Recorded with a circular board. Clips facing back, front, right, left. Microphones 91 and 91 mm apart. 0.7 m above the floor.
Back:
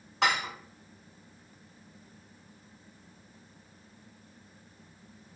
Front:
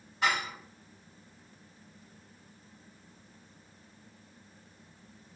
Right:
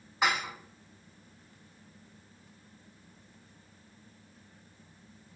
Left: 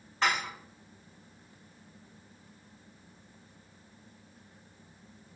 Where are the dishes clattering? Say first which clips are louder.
Back 2 dB, even; 170° right, 1.0 m.